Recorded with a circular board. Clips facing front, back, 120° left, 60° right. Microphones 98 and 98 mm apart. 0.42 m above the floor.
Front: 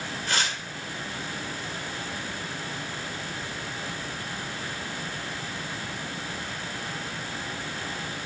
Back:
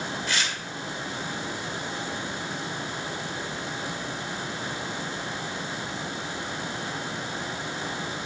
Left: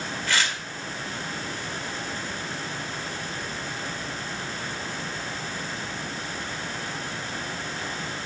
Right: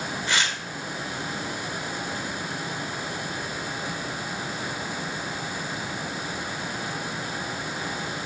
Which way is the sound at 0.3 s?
Straight ahead.